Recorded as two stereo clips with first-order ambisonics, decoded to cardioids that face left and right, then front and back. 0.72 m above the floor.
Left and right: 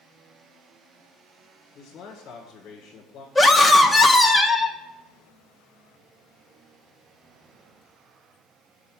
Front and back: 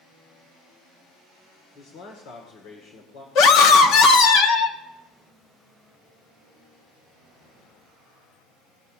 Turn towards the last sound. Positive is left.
turn(degrees=15)